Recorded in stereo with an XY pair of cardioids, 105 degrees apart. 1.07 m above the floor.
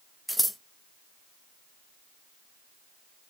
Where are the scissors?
5° right, 0.6 m.